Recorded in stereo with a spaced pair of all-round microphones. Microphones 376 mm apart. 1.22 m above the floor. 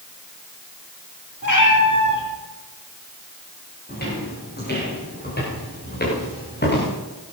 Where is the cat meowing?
50° left (ahead or behind), 7.5 m.